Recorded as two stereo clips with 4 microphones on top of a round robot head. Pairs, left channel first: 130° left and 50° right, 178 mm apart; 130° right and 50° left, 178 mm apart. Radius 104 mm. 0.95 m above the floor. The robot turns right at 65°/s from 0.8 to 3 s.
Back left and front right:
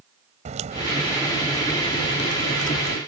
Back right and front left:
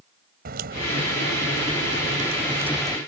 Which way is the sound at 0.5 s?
5° left.